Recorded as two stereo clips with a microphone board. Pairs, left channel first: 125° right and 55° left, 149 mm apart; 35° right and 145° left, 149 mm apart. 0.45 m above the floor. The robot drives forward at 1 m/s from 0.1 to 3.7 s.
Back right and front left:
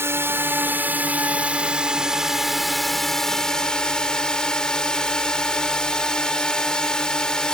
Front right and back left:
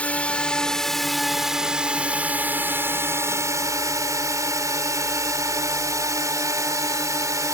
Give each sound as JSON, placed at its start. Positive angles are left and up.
{"t": 0.0, "sound": "a drone", "azimuth_deg": 25}